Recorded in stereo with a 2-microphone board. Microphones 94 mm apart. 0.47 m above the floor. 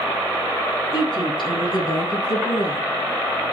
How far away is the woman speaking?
About 5.5 m.